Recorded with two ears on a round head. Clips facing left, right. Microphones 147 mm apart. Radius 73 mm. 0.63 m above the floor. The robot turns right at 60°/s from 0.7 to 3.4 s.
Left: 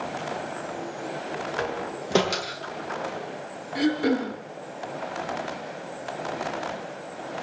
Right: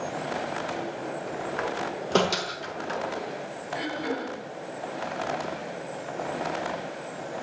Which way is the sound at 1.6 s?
45° left (ahead or behind).